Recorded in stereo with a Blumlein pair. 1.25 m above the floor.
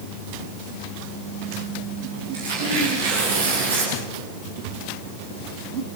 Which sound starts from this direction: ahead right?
Tearing paper, at 2.3 s.